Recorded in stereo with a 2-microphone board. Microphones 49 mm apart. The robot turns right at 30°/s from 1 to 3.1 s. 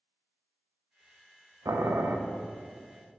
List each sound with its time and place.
1.6 s boiling: 85° right, 0.6 m; by 2.2 s 80° right, 0.6 m